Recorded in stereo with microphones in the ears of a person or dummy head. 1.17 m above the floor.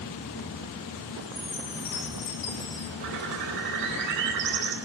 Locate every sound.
1.2 s a chime: 20° left (ahead or behind), 0.5 m
3.0 s a bird: 55° right (ahead or behind), 2.5 m